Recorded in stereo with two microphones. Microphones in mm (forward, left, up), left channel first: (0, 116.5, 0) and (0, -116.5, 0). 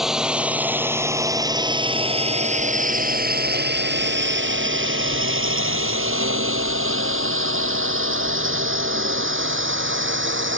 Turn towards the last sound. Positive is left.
turn(degrees=-55)  # may be behind; listen again after turning